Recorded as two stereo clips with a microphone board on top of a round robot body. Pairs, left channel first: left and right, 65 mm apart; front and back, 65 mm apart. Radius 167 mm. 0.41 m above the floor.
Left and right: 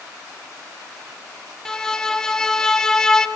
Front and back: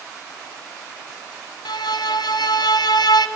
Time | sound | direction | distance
1.6 | a violin | 10° left | 1.1 m